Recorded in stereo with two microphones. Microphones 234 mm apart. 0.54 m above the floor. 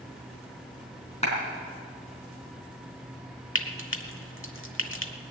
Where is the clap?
25° left (ahead or behind), 4.5 m.